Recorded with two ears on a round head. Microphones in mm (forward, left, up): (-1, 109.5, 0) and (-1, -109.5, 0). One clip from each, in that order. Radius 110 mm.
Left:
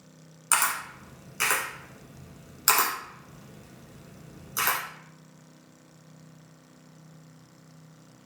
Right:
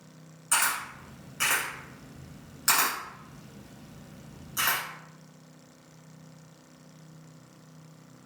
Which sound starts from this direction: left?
A camera shutter, at 0.5 s.